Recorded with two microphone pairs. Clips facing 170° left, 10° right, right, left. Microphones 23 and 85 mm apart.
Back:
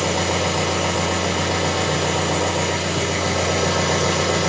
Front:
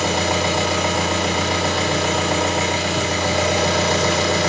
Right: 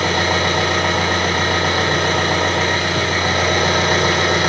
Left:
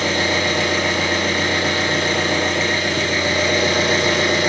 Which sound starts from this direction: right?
An engine running, at 0.0 s.